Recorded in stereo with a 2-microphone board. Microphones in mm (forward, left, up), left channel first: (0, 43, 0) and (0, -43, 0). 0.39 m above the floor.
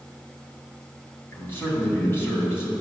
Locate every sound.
1.3 s a man speaking: 30° left (ahead or behind), 2.5 m